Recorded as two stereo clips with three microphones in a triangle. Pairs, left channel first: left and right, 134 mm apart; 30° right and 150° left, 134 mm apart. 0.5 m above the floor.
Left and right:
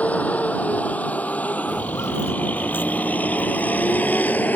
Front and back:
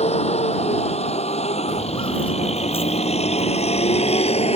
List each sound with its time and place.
0.0 s a vehicle: 10° left
1.7 s footsteps: 25° left; by 4.5 s 10° left